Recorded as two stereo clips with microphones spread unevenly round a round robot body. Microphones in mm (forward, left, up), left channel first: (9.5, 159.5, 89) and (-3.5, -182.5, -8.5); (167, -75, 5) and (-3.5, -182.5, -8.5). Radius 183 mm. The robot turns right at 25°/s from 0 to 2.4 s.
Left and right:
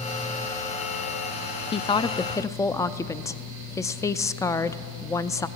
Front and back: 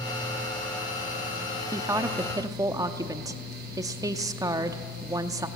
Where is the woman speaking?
Straight behind, 0.6 m; by 5.5 s 165° right, 0.6 m.